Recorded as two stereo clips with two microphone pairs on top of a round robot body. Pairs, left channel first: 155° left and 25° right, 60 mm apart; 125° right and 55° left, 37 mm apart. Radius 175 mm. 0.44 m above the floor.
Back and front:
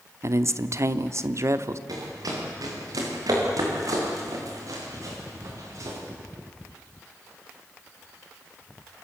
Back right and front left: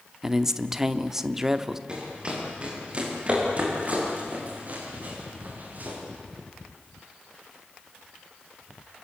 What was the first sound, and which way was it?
A man speaking, 25° right.